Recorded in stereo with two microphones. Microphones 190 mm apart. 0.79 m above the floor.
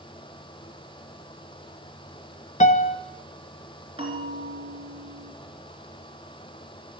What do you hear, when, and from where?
2.6 s a piano: 40° left (ahead or behind), 0.7 m
4.0 s a bell: 30° right (ahead or behind), 3.5 m